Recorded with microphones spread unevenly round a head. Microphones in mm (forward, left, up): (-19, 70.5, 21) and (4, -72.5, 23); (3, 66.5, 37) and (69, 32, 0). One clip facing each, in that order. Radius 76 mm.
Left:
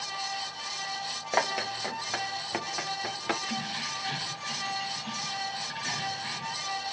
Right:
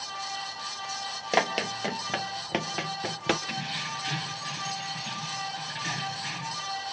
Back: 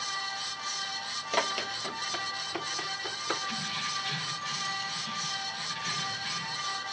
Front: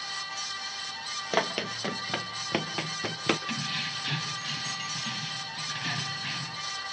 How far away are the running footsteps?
About 1.4 m.